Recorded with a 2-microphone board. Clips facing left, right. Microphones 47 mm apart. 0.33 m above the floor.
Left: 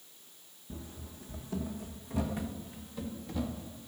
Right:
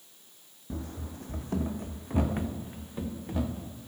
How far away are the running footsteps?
About 0.8 m.